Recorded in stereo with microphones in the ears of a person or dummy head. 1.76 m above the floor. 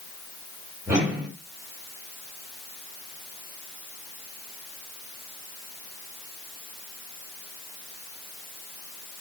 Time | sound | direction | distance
0.9 | a whoosh | 10° right (ahead or behind) | 3 m